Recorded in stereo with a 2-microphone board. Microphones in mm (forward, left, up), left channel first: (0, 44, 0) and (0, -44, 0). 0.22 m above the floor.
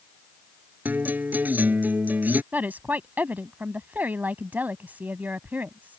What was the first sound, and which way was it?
A guitar, 20° right (ahead or behind).